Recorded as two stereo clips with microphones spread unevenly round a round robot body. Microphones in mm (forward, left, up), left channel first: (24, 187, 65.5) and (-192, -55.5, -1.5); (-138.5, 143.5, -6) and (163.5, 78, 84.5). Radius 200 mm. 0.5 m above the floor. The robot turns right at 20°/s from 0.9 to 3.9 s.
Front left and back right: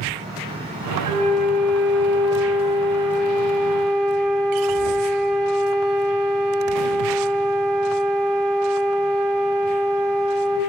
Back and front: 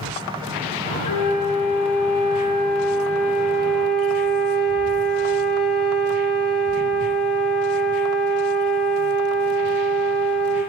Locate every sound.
1.1 s a flute: 155° left, 1.6 m; by 10.6 s 150° right, 1.6 m